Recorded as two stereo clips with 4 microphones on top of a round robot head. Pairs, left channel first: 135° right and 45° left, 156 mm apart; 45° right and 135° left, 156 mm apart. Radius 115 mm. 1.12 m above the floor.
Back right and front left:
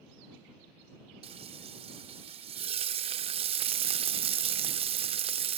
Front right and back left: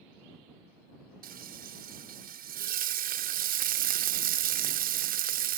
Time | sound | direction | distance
1.2 | frying | 100° left | ?